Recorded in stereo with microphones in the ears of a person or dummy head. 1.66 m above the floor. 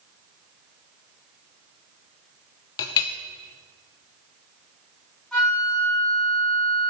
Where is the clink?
20° left (ahead or behind), 0.6 m.